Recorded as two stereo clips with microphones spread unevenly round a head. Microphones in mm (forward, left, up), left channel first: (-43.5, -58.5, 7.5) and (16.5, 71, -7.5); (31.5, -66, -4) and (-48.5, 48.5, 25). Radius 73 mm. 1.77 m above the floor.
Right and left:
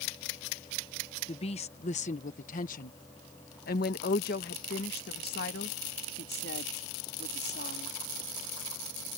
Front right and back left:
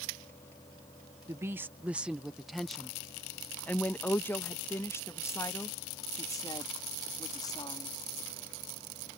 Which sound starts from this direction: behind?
A woman speaking, at 1.3 s.